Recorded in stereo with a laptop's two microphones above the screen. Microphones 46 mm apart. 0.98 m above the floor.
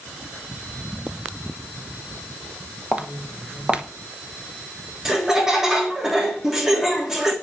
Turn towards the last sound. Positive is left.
turn(degrees=-10)  # may be behind; listen again after turning